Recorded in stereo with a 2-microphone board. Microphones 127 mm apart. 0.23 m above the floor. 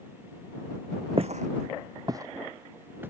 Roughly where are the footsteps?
Right.